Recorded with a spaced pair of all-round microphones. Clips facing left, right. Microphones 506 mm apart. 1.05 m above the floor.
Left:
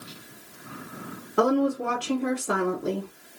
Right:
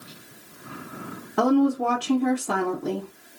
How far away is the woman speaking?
About 0.6 m.